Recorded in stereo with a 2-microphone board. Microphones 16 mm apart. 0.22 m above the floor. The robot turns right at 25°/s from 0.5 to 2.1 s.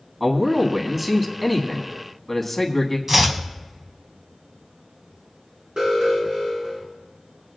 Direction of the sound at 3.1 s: 25° right (ahead or behind).